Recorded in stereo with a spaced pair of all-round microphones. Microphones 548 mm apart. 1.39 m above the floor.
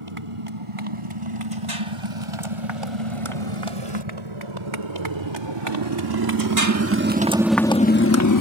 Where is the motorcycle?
70° right (ahead or behind); by 8.4 s 35° left (ahead or behind).